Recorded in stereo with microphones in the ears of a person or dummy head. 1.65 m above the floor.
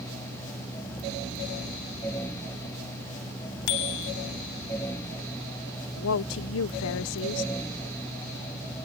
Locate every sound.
3.7 s a bicycle bell: 60° left (ahead or behind)
6.0 s a woman speaking: 75° left (ahead or behind)